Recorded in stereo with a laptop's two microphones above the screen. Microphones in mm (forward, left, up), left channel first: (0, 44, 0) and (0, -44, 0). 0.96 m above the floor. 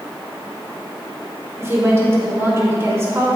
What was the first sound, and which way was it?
A woman speaking, 30° right (ahead or behind).